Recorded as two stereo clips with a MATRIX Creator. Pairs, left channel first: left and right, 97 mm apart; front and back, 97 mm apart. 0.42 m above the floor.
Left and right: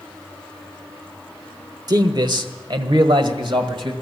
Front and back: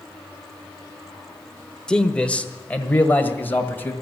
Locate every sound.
1.9 s a man speaking: 75° right, 0.9 m; by 3.9 s 65° right, 1.9 m